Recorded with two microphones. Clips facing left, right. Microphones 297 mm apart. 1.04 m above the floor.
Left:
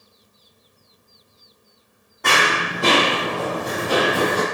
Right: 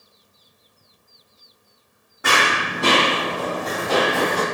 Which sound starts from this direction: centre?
Running footsteps, at 2.2 s.